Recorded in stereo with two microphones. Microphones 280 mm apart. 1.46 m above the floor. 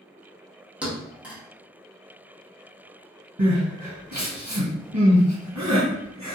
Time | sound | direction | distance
0.8 | a thud | 5° right (ahead or behind) | 0.9 m
3.4 | crying | 70° right (ahead or behind) | 1.5 m